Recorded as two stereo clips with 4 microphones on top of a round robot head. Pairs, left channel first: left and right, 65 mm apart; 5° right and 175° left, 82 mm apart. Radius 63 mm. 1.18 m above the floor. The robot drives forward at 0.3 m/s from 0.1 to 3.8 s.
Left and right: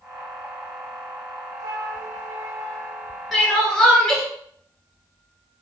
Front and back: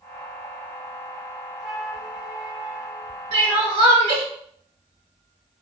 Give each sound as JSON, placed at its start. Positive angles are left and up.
{"t": 1.6, "sound": "a flute", "azimuth_deg": -90, "distance_m": 0.8}
{"t": 3.3, "sound": "crying", "azimuth_deg": 180, "distance_m": 1.4}